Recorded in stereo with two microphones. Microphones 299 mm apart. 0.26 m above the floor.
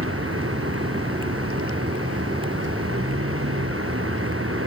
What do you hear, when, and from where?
0.0 s a vehicle: 45° right (ahead or behind)